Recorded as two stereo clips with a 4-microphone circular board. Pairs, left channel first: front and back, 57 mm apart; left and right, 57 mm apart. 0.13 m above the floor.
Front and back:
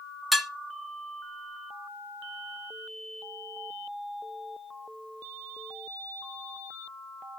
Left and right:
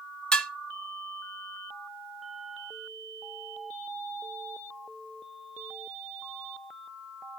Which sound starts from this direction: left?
Dishes clattering, at 0.3 s.